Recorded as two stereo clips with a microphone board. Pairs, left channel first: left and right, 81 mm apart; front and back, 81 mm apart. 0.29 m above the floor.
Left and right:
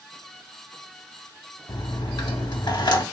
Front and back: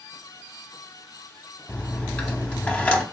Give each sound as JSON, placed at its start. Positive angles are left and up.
{"t": 1.7, "sound": "a dropped coin", "azimuth_deg": 70, "distance_m": 0.5}